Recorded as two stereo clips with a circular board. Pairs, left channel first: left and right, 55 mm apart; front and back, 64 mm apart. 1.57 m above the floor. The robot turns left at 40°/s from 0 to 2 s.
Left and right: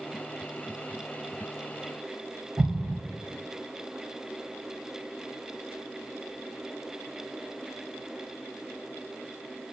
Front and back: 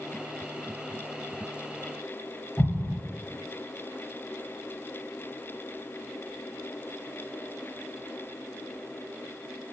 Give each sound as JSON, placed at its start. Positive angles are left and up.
{"t": 2.6, "sound": "an explosion", "azimuth_deg": -85, "distance_m": 1.2}